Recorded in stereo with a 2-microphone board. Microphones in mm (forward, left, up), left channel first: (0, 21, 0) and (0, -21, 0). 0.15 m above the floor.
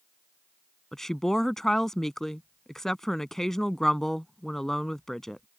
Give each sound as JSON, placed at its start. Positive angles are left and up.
{"t": 0.9, "sound": "a woman speaking", "side_deg": 10}